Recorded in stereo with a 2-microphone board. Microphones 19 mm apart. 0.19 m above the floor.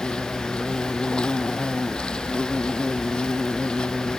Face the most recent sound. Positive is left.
turn(degrees=55)  # may be behind; listen again after turning